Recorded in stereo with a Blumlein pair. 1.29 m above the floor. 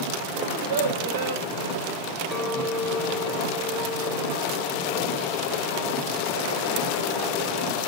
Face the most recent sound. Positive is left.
turn(degrees=15)